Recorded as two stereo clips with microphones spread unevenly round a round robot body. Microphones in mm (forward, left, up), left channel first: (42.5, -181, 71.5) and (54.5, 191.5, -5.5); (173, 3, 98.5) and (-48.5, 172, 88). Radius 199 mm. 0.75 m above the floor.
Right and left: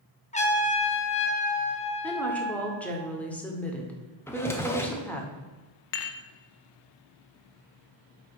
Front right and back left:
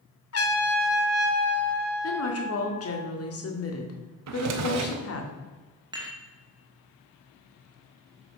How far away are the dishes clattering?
About 0.8 m.